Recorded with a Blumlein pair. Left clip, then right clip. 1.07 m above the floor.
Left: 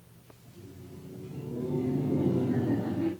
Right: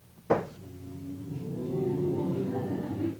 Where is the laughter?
5° right, 6.5 m; by 3.1 s 15° left, 6 m.